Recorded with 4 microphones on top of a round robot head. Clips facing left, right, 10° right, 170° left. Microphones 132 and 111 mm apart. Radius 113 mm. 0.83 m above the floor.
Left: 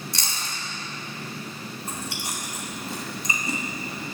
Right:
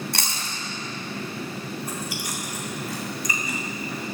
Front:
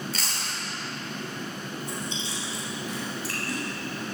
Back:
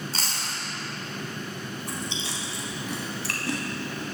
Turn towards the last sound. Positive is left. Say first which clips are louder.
# right 3 dB, even
turn(degrees=155)